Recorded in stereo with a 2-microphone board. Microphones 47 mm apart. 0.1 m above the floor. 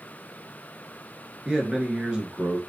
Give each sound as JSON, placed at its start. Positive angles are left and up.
{"t": 1.4, "sound": "a man speaking", "side_deg": -15, "distance_m": 1.1}